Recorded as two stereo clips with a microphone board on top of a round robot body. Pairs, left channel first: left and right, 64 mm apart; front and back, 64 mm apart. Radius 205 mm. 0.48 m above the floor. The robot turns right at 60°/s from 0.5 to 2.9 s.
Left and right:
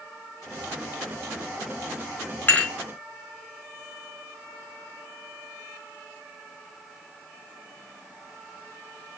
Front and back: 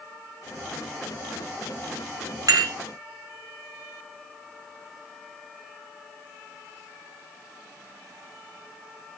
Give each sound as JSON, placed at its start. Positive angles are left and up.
{"t": 2.5, "sound": "dishes clattering", "azimuth_deg": 155, "distance_m": 5.0}